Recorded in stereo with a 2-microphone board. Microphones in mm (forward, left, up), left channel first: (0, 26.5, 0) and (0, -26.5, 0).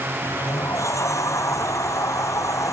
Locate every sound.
0.2 s a sliding door: 80° left